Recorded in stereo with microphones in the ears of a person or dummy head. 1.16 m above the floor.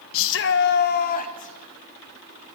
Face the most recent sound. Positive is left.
turn(degrees=40)  # may be behind; listen again after turning